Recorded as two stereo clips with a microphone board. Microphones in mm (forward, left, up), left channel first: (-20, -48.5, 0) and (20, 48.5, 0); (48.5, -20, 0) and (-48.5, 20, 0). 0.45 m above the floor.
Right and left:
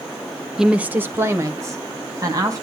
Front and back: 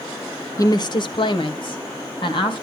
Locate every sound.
0.6 s a woman speaking: 15° right, 0.8 m; by 2.6 s 15° left, 3 m